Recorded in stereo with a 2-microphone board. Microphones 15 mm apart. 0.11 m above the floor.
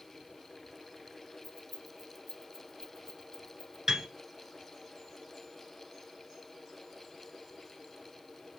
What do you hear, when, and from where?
1.4 s keys jangling: centre (ahead or behind), 0.9 m; by 3.8 s 55° left (ahead or behind), 1.5 m
3.9 s a piano: 30° right (ahead or behind), 1.4 m